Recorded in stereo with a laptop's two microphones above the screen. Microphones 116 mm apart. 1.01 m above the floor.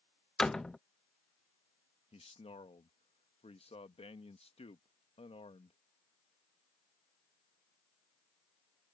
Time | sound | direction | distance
0.4 | a door slam | 5° left (ahead or behind) | ?
2.1 | a man speaking | 60° left (ahead or behind) | ?